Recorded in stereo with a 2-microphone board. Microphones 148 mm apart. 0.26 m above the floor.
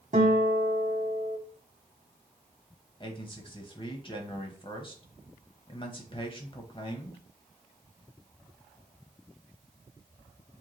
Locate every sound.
0.1 s a guitar: 55° right (ahead or behind), 1.2 m
3.0 s a man speaking: 35° left (ahead or behind), 1.0 m